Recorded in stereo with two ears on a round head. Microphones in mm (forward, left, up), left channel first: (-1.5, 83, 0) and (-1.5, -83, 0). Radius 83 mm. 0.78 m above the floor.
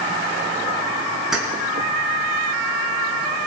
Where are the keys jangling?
5° right (ahead or behind), 5 m.